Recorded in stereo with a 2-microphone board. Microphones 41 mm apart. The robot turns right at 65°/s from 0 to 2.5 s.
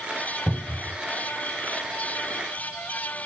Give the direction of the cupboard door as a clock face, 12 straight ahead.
12 o'clock.